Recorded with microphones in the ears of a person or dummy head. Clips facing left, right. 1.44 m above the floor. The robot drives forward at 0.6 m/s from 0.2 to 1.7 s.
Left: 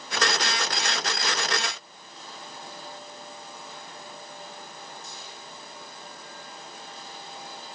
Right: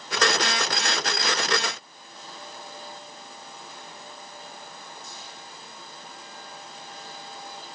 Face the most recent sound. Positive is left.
No sound to turn to.